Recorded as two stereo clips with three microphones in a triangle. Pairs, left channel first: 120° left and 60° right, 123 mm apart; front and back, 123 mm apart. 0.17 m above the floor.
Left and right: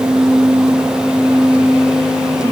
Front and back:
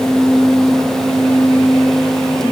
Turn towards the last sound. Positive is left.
No sound to turn to.